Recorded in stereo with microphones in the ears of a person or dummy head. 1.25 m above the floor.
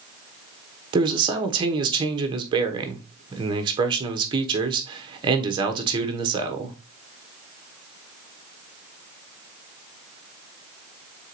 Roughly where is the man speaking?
Right.